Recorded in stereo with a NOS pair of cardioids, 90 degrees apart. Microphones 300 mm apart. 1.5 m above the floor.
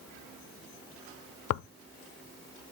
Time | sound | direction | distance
1.5 | tearing paper | 55° left | 0.6 m